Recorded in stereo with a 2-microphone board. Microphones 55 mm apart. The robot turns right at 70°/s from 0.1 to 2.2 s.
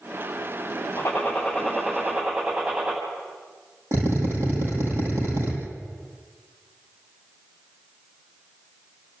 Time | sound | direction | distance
1.0 | a gunshot | 130° left | 9 m
3.9 | a drill | 55° right (ahead or behind) | 5.5 m